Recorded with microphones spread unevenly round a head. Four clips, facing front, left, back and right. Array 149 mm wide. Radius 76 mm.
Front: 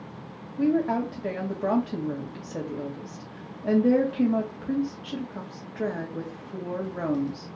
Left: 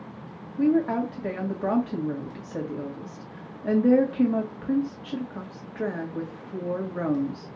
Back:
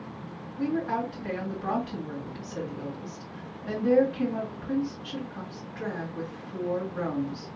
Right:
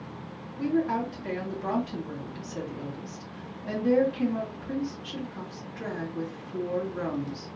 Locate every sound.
0.6 s a woman speaking: 45° left, 1.9 m